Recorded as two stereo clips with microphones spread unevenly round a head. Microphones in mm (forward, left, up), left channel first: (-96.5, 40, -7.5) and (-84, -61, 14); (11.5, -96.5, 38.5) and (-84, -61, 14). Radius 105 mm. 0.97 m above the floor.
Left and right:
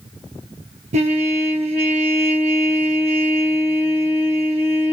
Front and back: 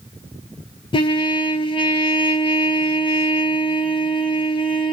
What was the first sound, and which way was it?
A trumpet, 65° right.